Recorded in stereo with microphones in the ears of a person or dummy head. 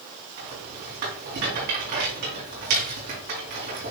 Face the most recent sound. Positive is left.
turn(degrees=-55)  # may be behind; listen again after turning